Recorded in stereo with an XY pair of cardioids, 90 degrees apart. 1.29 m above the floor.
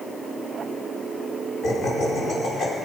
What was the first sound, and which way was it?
Laughter, 55° left.